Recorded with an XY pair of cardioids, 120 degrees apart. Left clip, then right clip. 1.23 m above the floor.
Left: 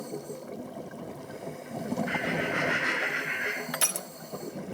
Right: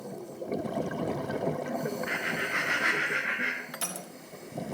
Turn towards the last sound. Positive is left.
turn(degrees=40)